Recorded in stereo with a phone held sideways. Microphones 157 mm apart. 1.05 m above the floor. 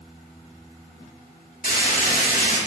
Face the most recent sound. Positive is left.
turn(degrees=65)  # may be behind; listen again after turning